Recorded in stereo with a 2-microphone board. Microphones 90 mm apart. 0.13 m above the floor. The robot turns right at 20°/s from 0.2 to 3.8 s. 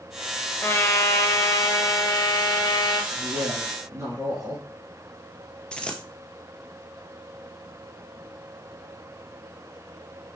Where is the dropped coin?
10° left (ahead or behind), 0.6 m.